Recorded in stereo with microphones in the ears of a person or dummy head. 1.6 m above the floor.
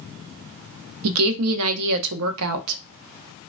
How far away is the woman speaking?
About 0.5 m.